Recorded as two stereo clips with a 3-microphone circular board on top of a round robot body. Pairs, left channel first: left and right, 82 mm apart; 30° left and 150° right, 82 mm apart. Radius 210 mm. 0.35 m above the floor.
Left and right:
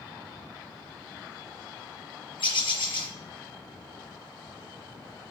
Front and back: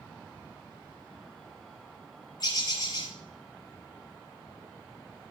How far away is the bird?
About 2 m.